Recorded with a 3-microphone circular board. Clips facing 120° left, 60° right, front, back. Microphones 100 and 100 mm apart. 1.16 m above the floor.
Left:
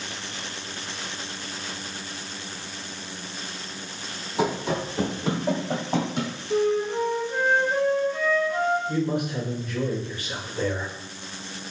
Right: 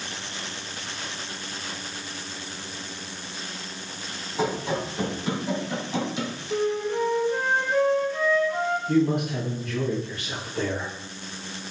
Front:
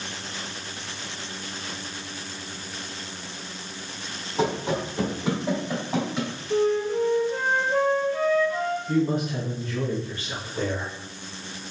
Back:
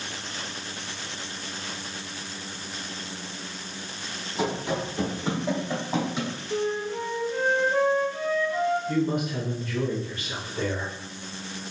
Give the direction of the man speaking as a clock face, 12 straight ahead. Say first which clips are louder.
Right 4 dB, front 2 dB; 2 o'clock.